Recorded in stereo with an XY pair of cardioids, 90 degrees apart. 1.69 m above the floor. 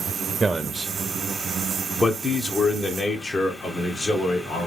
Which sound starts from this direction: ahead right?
A man speaking, at 0.4 s.